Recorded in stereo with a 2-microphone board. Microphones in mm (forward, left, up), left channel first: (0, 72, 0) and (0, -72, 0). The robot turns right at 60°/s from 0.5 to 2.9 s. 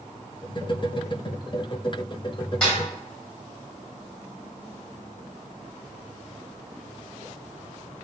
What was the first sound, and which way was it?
A snare drum, 5° left (ahead or behind).